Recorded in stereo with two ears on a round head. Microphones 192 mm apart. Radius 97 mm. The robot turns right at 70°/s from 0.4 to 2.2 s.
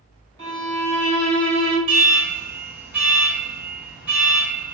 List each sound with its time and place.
0.4 s a violin: 60° right, 1.3 m; by 1.8 s 35° left, 1.3 m
1.9 s an alarm: 25° right (ahead or behind), 1.5 m; by 4.8 s 10° right (ahead or behind), 1.5 m